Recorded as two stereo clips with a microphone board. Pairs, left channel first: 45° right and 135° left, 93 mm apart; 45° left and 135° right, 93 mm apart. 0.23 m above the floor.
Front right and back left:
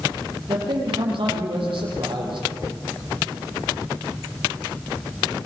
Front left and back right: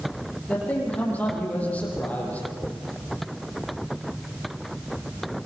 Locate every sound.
0.5 s a man speaking: 120° left, 7.5 m